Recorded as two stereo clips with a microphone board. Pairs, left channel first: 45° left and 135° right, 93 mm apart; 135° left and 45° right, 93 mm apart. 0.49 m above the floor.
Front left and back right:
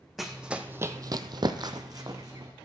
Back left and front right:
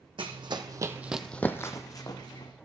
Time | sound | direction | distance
0.2 | running footsteps | 50° right | 1.1 m